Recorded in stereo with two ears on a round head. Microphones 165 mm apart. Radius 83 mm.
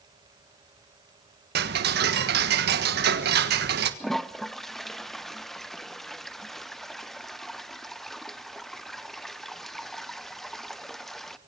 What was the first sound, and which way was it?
Ticking, 65° right (ahead or behind).